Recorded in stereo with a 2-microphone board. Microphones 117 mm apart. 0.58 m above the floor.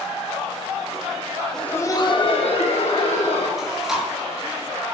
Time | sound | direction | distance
1.5 | laughter | 5° left (ahead or behind) | 0.9 m
3.6 | chewing | 5° right (ahead or behind) | 5 m